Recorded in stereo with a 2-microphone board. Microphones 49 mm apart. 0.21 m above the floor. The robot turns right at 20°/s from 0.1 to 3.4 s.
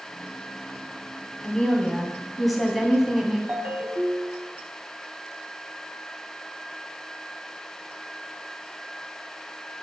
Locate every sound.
1.4 s a woman speaking: 160° left, 1.5 m; by 3.4 s 165° right, 1.5 m
3.5 s a ringtone: 35° right (ahead or behind), 0.7 m